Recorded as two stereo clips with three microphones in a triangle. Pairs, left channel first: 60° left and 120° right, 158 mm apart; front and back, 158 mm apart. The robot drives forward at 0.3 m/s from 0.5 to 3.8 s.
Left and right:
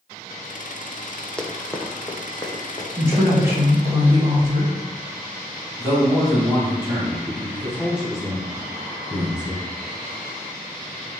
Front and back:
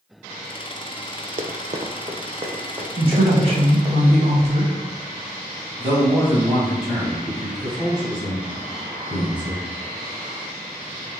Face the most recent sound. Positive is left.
turn(degrees=160)